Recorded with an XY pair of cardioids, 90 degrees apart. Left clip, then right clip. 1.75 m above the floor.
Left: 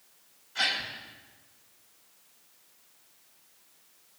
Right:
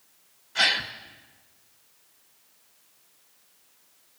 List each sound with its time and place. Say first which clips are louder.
0.6 s a gasp: right 6 dB; 70° right, 2.5 m